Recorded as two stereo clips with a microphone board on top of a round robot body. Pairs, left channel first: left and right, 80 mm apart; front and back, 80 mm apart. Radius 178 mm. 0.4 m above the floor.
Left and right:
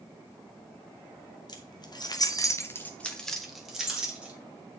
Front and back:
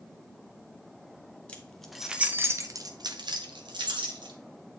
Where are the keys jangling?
75° left, 1.3 m; by 4.3 s 165° right, 2.0 m.